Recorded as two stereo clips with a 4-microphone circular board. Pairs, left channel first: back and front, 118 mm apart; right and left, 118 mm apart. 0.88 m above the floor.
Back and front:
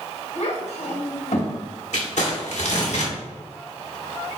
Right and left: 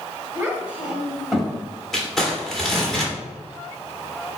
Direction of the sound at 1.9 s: 175° right.